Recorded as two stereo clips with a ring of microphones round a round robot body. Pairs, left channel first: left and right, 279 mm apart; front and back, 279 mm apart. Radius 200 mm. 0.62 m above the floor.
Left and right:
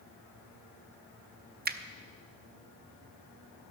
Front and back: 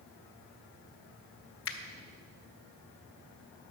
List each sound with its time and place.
1.6 s a finger snap: 35° right, 0.6 m